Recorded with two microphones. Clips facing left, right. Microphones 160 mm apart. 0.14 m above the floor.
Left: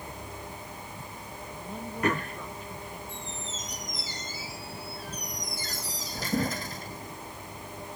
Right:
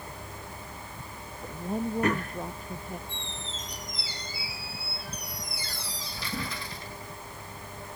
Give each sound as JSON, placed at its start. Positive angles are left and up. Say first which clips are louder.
{"t": 1.4, "sound": "a woman speaking", "louder": "right 9 dB", "side_deg": -50}
{"t": 3.1, "sound": "a squeak", "louder": "left 1 dB", "side_deg": 50}